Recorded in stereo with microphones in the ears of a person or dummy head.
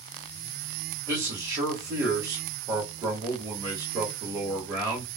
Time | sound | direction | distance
1.1 | a man speaking | 20° right (ahead or behind) | 1.3 m